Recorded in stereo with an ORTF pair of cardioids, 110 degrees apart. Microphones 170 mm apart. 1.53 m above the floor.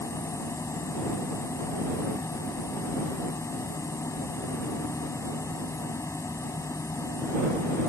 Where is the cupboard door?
I don't hear a cupboard door.